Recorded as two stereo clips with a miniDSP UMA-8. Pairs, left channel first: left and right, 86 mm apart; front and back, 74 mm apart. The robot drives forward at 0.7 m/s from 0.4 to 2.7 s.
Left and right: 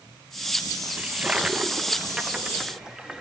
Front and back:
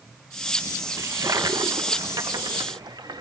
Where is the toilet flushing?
155° right, 0.8 m; by 3.2 s 170° right, 1.8 m.